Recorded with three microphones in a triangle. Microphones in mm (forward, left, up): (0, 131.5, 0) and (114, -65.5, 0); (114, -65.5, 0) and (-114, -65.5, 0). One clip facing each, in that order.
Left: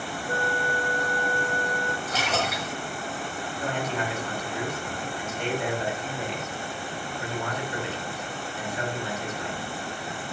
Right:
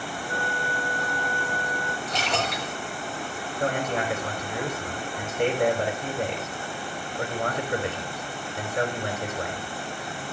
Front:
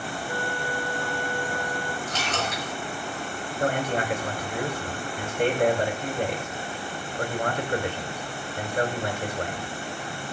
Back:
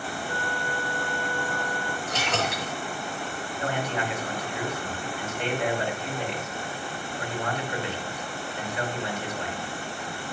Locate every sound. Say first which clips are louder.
0.3 s a flute: left 5 dB, front 3 dB; 75° left, 1.2 m
2.1 s a splash: right 2 dB, back 1 dB; 155° right, 7 m
3.6 s a man speaking: right 4 dB, front 4 dB; 35° right, 4.5 m